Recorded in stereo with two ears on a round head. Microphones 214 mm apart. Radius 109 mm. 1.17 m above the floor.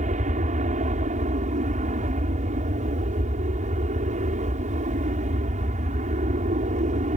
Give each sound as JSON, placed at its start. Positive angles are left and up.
{"t": 0.0, "sound": "an aircraft", "side_deg": -35}